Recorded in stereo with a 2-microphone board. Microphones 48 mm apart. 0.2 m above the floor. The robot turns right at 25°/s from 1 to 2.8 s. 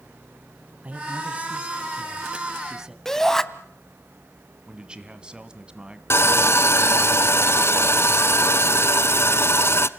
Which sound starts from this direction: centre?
A shout, at 3.0 s.